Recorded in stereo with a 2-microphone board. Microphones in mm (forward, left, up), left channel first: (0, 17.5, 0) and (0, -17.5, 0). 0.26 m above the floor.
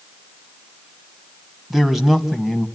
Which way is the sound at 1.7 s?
10° right (ahead or behind).